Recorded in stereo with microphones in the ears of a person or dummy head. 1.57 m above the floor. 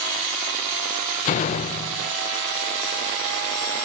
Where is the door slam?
40° left (ahead or behind), 0.8 m.